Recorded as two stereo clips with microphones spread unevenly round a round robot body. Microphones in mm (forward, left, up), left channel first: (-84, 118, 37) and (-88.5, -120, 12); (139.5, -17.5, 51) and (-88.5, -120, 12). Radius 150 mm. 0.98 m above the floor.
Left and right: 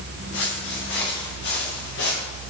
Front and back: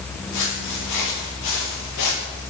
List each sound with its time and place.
0.3 s footsteps: 35° left, 9 m